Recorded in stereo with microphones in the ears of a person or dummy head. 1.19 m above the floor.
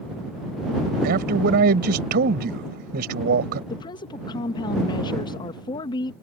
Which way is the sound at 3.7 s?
20° left (ahead or behind).